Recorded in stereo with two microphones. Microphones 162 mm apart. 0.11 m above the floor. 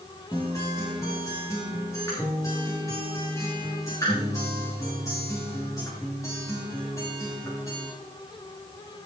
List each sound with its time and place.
0.3 s a guitar: 20° left (ahead or behind), 5.5 m